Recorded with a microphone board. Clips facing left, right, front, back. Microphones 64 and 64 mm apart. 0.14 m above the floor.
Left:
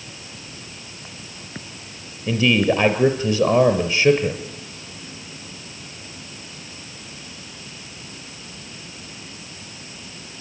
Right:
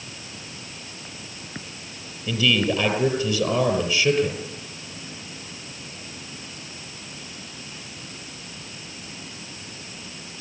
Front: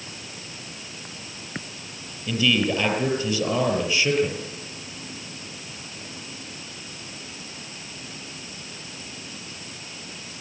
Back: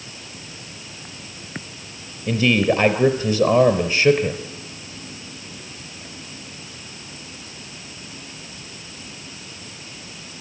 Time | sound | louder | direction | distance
2.3 | a man speaking | left 4 dB, back 4 dB | 130° left | 4 m